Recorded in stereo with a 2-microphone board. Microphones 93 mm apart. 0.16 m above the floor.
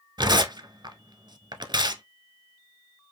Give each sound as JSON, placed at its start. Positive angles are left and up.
{"t": 0.2, "sound": "tearing paper", "side_deg": -50, "distance_m": 0.9}